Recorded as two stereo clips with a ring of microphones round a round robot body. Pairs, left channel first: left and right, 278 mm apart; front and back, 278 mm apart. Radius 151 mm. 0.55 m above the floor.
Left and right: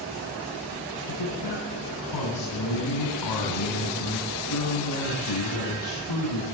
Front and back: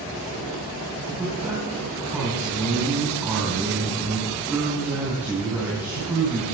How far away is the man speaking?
About 4 m.